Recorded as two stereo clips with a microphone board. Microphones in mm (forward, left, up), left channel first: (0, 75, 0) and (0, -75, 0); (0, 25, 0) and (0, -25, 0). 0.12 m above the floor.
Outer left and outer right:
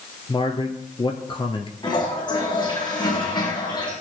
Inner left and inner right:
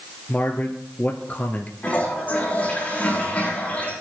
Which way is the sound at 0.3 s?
40° left (ahead or behind).